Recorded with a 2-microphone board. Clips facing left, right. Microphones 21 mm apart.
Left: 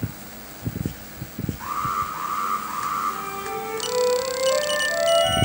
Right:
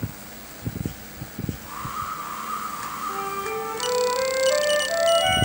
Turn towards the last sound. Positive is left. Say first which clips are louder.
# right 1 dB
turn(degrees=-30)  # may be behind; listen again after turning